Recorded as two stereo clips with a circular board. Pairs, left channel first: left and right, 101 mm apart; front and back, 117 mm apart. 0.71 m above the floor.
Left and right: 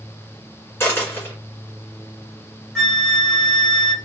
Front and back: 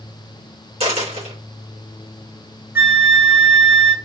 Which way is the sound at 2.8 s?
170° left.